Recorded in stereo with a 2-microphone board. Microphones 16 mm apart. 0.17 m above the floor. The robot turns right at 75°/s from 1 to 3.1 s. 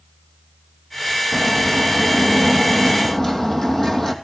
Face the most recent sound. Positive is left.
turn(degrees=155)